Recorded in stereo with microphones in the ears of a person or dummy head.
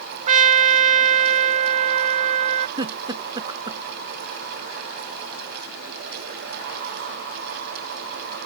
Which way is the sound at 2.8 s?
25° right (ahead or behind).